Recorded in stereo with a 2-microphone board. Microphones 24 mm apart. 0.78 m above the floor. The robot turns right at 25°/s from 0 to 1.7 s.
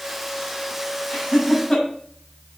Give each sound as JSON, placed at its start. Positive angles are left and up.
{"t": 1.1, "sound": "laughter", "side_deg": 50, "distance_m": 6.5}